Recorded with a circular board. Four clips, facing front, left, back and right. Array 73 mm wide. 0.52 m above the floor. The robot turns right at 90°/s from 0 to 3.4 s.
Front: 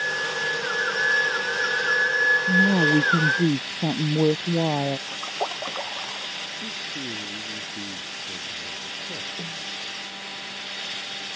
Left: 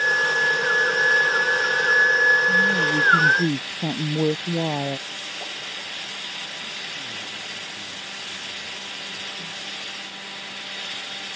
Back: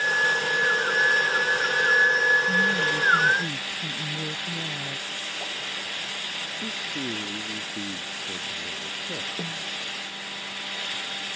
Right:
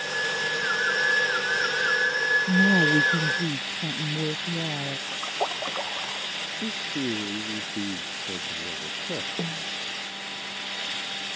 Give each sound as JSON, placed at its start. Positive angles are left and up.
{"t": 2.5, "sound": "a woman speaking", "azimuth_deg": -55}
{"t": 5.1, "sound": "a splash", "azimuth_deg": -40}
{"t": 6.6, "sound": "a man speaking", "azimuth_deg": -105}
{"t": 9.4, "sound": "a snare drum", "azimuth_deg": -110}